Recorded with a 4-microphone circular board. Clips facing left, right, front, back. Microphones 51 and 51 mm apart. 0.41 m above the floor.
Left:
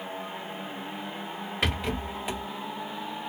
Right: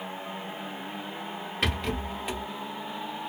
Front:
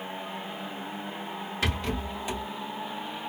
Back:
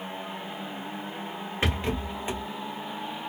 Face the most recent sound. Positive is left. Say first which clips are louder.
# even, back 2 dB
turn(degrees=170)